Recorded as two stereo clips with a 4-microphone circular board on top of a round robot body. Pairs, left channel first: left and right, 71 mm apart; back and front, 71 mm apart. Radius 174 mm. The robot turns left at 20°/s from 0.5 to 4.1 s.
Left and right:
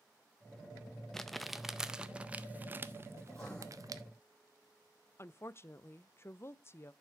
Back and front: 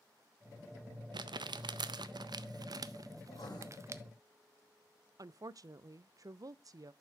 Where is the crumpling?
5° left, 0.6 m; by 4.0 s 55° right, 0.6 m.